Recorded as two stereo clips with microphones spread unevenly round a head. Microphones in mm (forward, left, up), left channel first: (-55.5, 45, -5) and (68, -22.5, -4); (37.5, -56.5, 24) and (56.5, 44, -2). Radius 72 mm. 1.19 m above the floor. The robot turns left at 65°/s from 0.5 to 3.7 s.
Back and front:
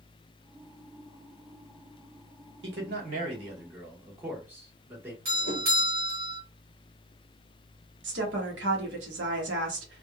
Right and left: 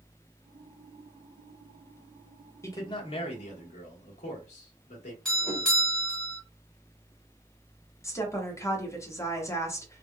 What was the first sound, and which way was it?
A man speaking, 35° right.